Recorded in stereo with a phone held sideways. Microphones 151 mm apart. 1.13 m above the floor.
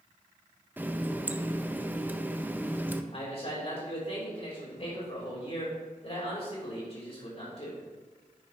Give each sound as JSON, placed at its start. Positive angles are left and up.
{"t": 0.8, "sound": "a running tap", "side_deg": -15, "distance_m": 0.5}
{"t": 3.1, "sound": "a man speaking", "side_deg": 45, "distance_m": 3.5}